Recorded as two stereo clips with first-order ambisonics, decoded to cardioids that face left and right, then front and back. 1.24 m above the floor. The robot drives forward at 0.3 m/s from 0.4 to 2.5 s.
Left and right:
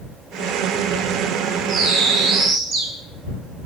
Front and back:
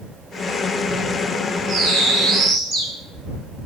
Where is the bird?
130° right, 1.6 m; by 2.9 s 140° right, 1.7 m.